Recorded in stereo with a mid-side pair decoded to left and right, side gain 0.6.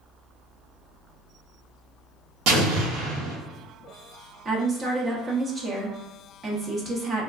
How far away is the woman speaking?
About 1.0 m.